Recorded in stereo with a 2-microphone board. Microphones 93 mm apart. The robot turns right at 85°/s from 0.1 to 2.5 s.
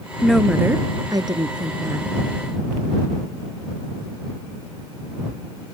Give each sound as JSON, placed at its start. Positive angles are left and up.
{"t": 0.2, "sound": "a woman speaking", "azimuth_deg": 170}